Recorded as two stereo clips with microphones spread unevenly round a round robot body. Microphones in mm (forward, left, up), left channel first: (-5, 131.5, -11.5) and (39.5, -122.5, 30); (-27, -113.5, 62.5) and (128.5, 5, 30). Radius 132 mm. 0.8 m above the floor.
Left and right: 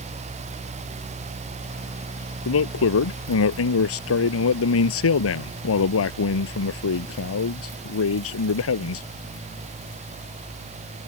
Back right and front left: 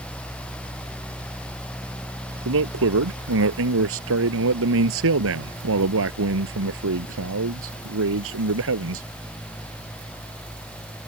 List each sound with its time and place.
2.5 s a man speaking: 60° left